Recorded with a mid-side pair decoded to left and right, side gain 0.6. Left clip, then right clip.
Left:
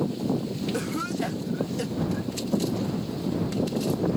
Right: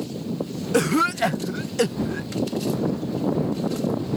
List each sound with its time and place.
0.7 s a cough: 50° right